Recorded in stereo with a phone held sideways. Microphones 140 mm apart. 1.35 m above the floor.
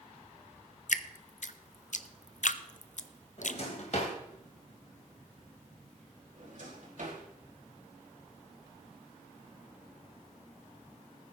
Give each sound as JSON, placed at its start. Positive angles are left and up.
{"t": 0.9, "sound": "dripping", "side_deg": 60, "distance_m": 0.5}
{"t": 3.4, "sound": "a drawer", "side_deg": 55, "distance_m": 2.5}
{"t": 6.4, "sound": "a drawer", "side_deg": -65, "distance_m": 4.0}